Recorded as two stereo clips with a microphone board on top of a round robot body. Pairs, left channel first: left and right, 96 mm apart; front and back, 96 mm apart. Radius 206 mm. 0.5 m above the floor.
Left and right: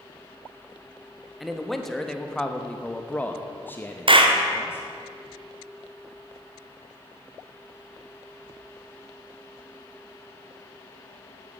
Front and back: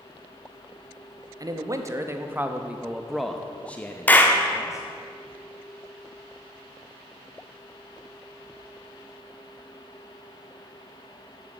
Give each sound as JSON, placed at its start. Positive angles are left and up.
{"t": 1.4, "sound": "a man speaking", "azimuth_deg": 180, "distance_m": 1.5}
{"t": 4.1, "sound": "a clap", "azimuth_deg": -70, "distance_m": 1.6}